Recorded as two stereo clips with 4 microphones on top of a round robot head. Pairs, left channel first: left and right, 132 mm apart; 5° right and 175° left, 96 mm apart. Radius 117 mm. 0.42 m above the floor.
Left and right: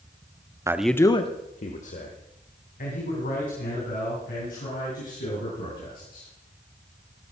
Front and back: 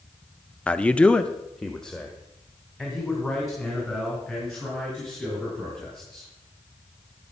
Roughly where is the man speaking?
Right.